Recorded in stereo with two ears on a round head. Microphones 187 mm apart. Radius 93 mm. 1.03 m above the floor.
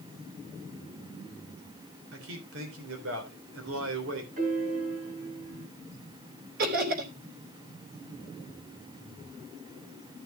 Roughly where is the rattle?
No rattle in this recording.